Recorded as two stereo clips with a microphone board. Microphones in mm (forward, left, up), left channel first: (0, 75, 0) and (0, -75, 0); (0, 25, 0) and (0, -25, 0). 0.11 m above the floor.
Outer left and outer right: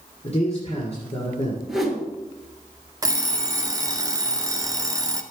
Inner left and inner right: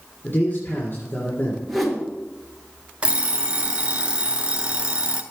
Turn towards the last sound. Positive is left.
turn(degrees=-25)  # may be behind; listen again after turning